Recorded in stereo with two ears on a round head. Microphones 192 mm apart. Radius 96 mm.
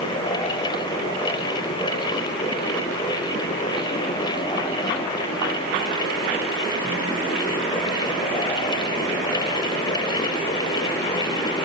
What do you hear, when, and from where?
Only background noise.